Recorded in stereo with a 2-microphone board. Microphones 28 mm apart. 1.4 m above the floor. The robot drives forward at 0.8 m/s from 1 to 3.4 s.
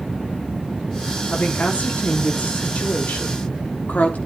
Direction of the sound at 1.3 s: 70° left (ahead or behind).